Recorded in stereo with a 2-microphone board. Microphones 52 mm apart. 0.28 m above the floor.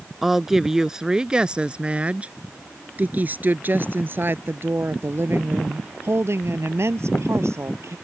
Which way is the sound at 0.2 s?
5° right (ahead or behind).